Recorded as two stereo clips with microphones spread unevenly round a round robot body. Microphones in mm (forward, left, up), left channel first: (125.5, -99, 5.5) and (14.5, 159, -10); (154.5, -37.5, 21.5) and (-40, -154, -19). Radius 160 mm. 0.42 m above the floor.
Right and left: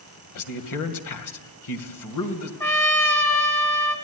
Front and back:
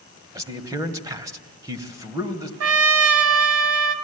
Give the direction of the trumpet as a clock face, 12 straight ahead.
5 o'clock.